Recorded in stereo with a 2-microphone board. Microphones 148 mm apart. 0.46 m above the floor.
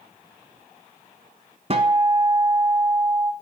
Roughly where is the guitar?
Right.